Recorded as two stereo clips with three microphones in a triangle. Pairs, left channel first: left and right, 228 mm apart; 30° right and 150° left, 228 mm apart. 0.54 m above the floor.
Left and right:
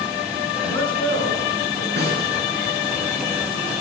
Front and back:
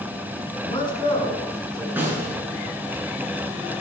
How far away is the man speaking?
About 8 m.